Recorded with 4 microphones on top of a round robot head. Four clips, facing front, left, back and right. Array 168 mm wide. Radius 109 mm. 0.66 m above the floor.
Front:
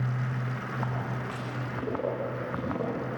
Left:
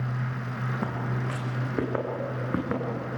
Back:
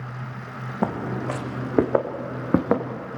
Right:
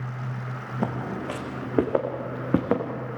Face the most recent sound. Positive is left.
turn(degrees=-155)